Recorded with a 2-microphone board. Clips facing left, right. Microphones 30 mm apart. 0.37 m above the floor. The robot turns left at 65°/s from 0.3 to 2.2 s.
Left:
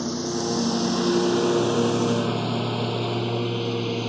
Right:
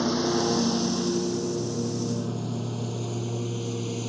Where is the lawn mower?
15° right (ahead or behind); by 4.1 s 30° left (ahead or behind).